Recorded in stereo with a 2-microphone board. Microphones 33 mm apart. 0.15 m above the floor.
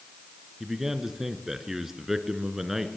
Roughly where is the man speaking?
Centre.